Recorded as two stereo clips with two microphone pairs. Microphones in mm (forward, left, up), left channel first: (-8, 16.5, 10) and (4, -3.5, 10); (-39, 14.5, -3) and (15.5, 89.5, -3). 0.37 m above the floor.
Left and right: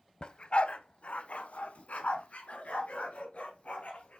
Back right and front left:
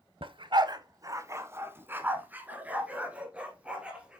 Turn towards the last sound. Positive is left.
turn(degrees=135)